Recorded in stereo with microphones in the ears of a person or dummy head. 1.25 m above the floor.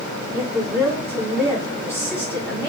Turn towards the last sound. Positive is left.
turn(degrees=-10)  # may be behind; listen again after turning